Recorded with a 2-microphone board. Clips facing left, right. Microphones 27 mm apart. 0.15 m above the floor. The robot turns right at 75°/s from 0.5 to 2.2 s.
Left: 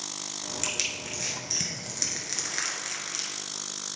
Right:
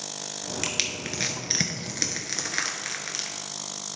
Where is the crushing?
30° right (ahead or behind), 1.1 m; by 3.3 s 20° right (ahead or behind), 1.1 m.